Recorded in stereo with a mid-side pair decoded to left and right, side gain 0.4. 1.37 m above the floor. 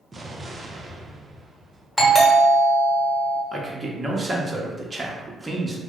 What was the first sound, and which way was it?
An explosion, 35° right.